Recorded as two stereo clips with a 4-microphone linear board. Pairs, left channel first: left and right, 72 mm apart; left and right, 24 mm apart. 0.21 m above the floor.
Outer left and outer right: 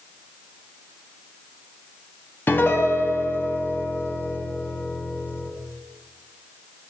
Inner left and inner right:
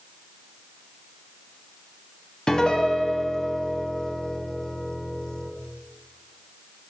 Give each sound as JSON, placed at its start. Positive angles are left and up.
{"t": 2.5, "sound": "a piano", "side_deg": 30, "distance_m": 1.3}